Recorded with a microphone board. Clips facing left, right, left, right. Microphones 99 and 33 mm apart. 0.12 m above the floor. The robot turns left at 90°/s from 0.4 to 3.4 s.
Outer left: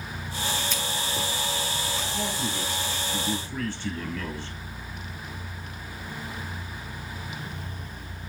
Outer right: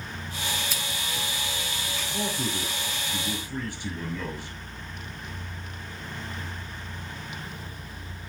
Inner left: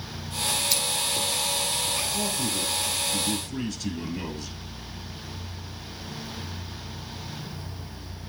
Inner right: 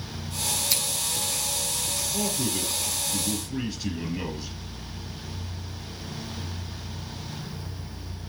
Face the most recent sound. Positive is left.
turn(degrees=-160)